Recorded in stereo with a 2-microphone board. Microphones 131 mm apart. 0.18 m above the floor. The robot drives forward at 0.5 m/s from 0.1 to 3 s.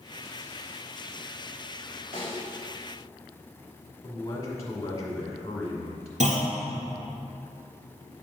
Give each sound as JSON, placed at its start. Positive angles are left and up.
{"t": 2.1, "sound": "a snare drum", "side_deg": -45, "distance_m": 2.0}
{"t": 4.0, "sound": "a man speaking", "side_deg": 30, "distance_m": 1.7}
{"t": 6.2, "sound": "a clunk", "side_deg": -65, "distance_m": 1.8}